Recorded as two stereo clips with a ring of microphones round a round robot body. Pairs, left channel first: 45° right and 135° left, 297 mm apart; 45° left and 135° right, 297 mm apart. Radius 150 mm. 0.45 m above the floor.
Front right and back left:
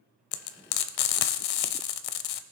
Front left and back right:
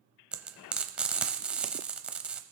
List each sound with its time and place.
0.3 s frying: 50° right, 0.6 m